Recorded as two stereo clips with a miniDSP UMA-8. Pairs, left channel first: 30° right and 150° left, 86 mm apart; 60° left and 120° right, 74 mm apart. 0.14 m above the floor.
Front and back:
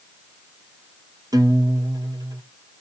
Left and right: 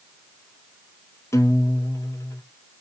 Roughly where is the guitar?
Left.